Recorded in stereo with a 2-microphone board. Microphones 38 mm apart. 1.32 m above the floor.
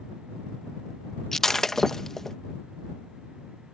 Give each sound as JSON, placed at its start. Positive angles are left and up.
{"t": 1.3, "sound": "breaking glass", "side_deg": 10}